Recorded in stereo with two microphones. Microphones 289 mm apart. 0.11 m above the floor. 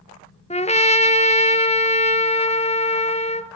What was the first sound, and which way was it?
A trumpet, 25° left (ahead or behind).